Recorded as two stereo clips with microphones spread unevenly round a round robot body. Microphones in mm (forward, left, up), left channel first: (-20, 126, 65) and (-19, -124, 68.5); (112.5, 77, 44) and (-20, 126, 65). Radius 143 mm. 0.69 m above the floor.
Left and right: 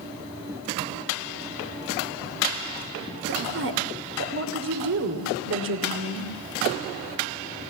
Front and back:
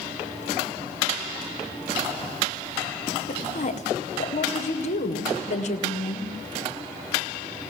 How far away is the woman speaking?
About 3 m.